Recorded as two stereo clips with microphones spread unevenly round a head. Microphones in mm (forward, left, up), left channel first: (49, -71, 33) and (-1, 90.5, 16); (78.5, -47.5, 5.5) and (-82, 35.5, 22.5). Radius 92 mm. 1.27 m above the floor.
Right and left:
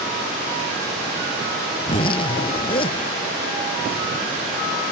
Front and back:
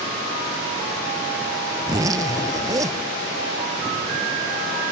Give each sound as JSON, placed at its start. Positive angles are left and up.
{"t": 1.8, "sound": "a zipper", "azimuth_deg": -135}